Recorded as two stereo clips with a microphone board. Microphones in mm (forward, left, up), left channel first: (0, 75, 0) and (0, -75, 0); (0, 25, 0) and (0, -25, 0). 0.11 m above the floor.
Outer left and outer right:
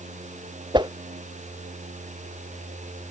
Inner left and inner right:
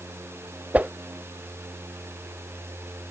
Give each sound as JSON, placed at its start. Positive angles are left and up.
{"t": 0.7, "sound": "a whoosh", "side_deg": -30}